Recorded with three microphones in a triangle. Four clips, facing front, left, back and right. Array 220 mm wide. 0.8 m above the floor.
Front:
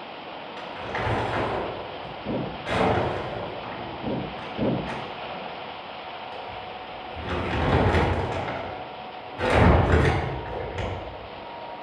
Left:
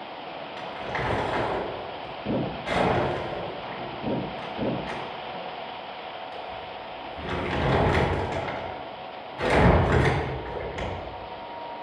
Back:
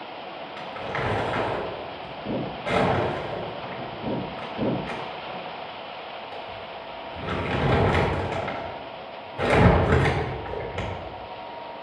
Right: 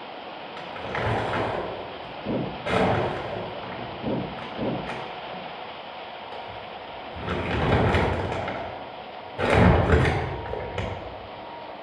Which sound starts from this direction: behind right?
Crumpling, at 0.6 s.